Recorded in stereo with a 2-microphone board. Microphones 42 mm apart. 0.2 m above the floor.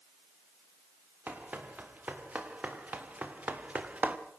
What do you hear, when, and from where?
1.3 s running footsteps: 40° right (ahead or behind), 3.5 m; by 4.2 s 30° right (ahead or behind), 1.7 m